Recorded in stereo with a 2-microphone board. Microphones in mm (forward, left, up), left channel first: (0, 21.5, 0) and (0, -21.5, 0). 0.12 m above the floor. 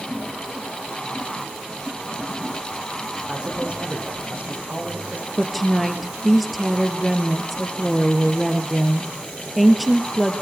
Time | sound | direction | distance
3.3 | a man speaking | 30° right (ahead or behind) | 5.5 m
5.4 | a woman speaking | centre (ahead or behind) | 2 m